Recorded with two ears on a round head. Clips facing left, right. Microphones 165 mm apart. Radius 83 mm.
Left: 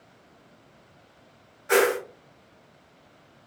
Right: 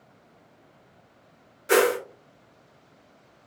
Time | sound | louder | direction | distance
1.7 | a whoosh | right 1 dB | 40° right (ahead or behind) | 0.9 m